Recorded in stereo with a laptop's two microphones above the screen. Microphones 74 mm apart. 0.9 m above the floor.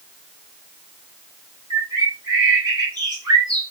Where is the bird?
75° right (ahead or behind), 2.5 m.